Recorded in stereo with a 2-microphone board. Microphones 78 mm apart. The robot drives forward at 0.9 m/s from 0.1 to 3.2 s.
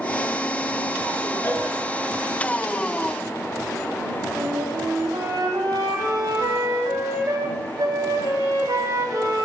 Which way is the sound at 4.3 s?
60° right (ahead or behind).